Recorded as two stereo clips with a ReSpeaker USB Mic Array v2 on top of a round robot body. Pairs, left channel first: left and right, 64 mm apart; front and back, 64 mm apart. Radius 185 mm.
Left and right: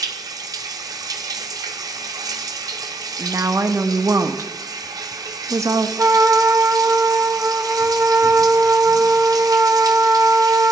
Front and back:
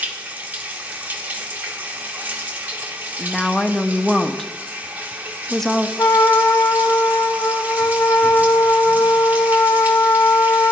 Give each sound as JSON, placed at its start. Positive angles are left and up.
{"t": 0.0, "sound": "running water", "azimuth_deg": -115, "distance_m": 1.2}
{"t": 3.2, "sound": "a woman speaking", "azimuth_deg": -85, "distance_m": 0.9}
{"t": 6.0, "sound": "a trumpet", "azimuth_deg": -45, "distance_m": 1.5}